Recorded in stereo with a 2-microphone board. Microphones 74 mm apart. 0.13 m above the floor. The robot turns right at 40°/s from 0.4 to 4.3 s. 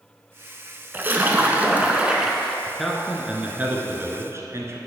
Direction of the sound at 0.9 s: 25° right (ahead or behind).